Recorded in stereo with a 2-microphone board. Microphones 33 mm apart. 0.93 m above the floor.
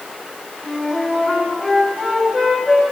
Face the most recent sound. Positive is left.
turn(degrees=-20)  # may be behind; listen again after turning